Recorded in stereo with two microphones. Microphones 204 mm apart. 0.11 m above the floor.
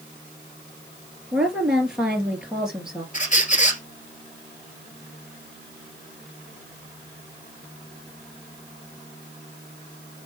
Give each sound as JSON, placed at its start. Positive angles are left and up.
{"t": 1.3, "sound": "a woman speaking", "side_deg": -5, "distance_m": 2.5}
{"t": 3.1, "sound": "a squeak", "side_deg": 40, "distance_m": 1.4}